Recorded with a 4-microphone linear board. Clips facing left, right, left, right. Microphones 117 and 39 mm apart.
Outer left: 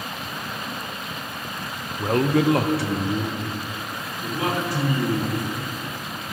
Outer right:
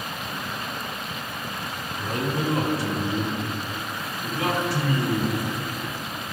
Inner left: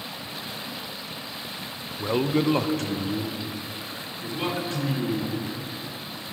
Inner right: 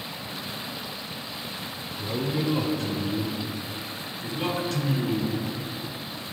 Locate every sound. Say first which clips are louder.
2.0 s a man speaking: outer left 8 dB, inner left 5 dB; 45° left (ahead or behind), 0.6 m; by 5.3 s 40° left (ahead or behind), 3 m